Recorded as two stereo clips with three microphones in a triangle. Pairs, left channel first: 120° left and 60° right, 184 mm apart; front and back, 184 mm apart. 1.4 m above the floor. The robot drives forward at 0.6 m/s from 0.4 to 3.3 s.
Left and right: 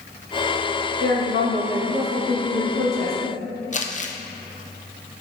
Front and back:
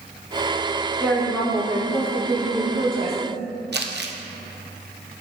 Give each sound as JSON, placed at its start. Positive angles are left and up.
{"t": 1.0, "sound": "a woman speaking", "azimuth_deg": -80, "distance_m": 1.8}
{"t": 3.7, "sound": "crumpling", "azimuth_deg": 165, "distance_m": 0.6}